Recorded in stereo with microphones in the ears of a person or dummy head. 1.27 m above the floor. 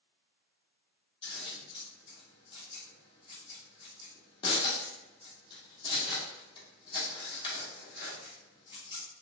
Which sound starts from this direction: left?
Scissors, at 1.2 s.